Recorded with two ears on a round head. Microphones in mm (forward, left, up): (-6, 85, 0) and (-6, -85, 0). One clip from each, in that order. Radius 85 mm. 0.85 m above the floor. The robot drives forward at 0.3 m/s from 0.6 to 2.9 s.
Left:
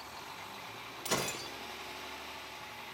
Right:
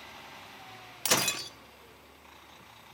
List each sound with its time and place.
1.1 s breaking glass: 60° right (ahead or behind), 0.6 m; by 1.5 s 50° right (ahead or behind), 0.7 m